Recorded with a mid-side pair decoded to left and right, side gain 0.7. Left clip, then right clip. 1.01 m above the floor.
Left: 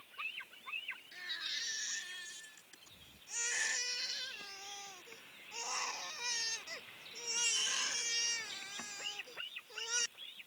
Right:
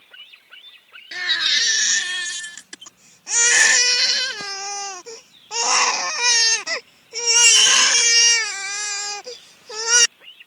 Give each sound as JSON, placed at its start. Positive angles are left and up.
{"t": 1.1, "sound": "a baby crying", "azimuth_deg": -70}